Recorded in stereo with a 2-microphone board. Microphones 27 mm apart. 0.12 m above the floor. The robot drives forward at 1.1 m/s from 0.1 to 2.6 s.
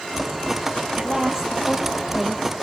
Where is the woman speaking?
25° right (ahead or behind), 2.5 m; by 2.5 s 15° right (ahead or behind), 4 m.